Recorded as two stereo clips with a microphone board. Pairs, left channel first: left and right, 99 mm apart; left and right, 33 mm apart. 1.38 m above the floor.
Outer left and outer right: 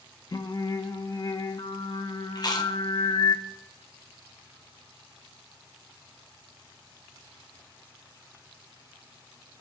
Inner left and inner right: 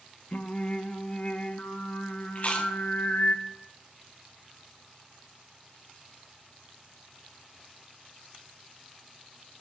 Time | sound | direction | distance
0.3 | singing | 40° left (ahead or behind) | 0.6 m
2.4 | chewing | 45° left (ahead or behind) | 1.0 m